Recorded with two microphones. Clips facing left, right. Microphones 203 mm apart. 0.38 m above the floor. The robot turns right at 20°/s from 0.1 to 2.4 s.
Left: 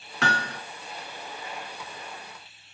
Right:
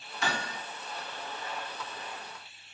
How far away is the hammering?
About 2 m.